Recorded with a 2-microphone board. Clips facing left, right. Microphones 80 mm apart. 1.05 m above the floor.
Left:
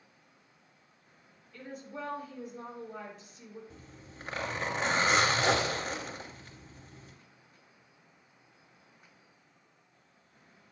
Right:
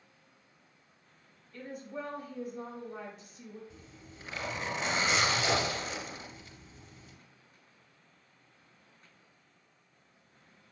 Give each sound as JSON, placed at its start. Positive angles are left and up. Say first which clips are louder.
{"t": 1.5, "sound": "a woman speaking", "louder": "right 2 dB", "side_deg": 0, "distance_m": 5.0}
{"t": 3.7, "sound": "a zipper", "louder": "left 1 dB", "side_deg": 55, "distance_m": 2.5}